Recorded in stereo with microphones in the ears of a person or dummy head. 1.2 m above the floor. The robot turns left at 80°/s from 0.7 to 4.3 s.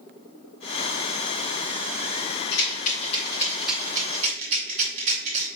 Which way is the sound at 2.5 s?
60° left (ahead or behind).